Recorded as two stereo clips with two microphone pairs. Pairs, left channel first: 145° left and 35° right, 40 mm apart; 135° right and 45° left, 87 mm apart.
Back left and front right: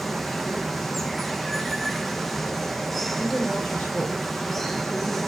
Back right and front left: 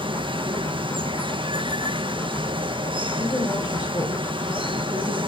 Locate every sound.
0.0 s running water: 60° left, 0.9 m
3.1 s a woman speaking: 155° right, 9.5 m